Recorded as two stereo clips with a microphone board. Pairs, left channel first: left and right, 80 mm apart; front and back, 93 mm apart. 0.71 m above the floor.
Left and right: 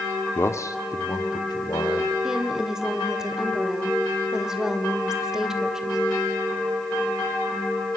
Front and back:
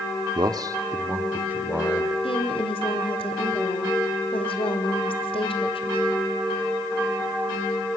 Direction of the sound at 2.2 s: 5° right.